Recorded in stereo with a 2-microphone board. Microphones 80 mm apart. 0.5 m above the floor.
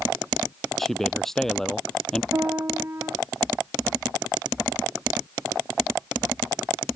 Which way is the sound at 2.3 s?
30° right (ahead or behind).